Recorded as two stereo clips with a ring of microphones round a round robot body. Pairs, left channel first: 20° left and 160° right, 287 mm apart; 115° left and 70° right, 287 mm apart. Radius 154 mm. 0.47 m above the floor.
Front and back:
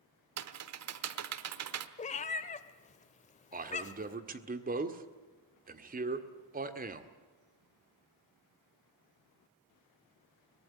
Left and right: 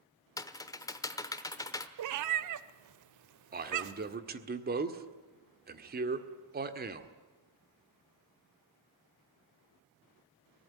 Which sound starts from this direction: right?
A man speaking, at 3.5 s.